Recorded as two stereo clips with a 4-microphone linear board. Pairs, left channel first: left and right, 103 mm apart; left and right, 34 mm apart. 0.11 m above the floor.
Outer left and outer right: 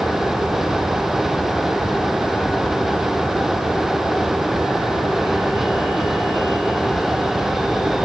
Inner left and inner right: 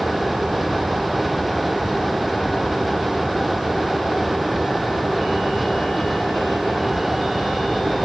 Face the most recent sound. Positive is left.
No sound to turn to.